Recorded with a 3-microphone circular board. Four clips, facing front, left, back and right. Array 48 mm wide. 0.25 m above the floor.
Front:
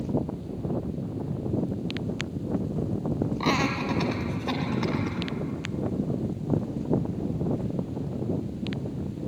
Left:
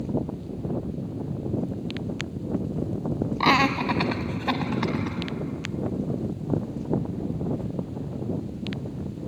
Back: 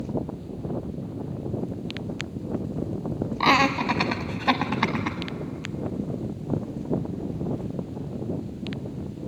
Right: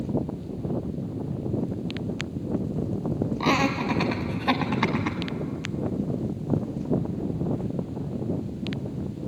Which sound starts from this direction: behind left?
Laughter, at 3.4 s.